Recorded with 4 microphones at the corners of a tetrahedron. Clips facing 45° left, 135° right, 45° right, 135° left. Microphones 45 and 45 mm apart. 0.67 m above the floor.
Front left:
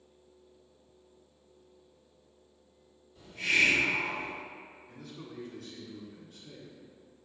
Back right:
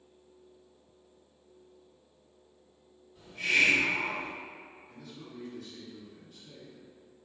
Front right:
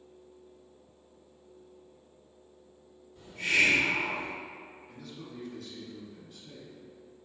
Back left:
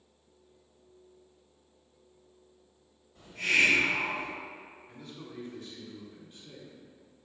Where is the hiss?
150° left, 1.9 m.